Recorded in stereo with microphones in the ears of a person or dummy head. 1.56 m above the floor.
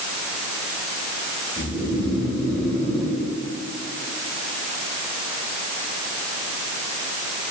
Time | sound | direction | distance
1.6 | snoring | centre (ahead or behind) | 3.5 m